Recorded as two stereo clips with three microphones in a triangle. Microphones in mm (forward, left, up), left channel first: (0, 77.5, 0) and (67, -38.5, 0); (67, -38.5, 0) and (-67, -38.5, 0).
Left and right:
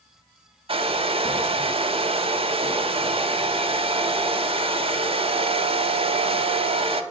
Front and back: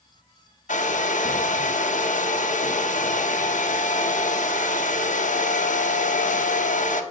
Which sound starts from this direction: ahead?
A hair dryer, at 0.7 s.